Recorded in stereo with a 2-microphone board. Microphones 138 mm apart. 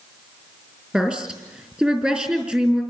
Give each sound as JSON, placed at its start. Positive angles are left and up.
{"t": 0.9, "sound": "a woman speaking", "side_deg": -10, "distance_m": 4.0}